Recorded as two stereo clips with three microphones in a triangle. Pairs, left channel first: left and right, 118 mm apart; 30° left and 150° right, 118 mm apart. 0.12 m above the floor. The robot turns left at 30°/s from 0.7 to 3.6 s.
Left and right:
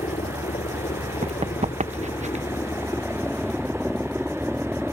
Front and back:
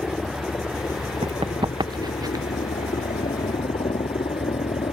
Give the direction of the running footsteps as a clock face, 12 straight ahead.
4 o'clock.